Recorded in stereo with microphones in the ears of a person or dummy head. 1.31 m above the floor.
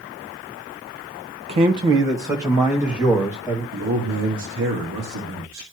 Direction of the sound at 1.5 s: 35° right (ahead or behind).